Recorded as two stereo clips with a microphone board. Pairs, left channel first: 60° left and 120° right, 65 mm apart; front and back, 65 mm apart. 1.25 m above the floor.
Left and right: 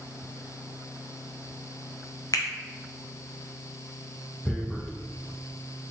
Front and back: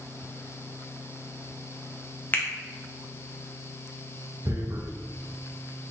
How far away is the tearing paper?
About 0.7 m.